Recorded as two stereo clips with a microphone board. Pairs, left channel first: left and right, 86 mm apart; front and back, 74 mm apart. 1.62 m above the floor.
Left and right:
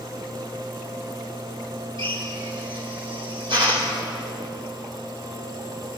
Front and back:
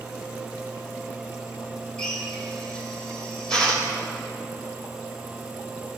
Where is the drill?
80° right, 4.5 m.